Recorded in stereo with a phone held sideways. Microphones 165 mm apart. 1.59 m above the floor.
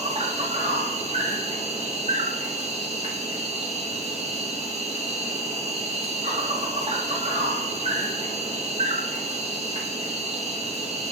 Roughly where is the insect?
Right.